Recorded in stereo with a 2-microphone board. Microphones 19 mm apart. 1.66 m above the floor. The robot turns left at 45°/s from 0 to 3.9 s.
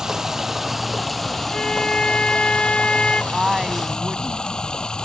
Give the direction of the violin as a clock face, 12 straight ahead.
7 o'clock.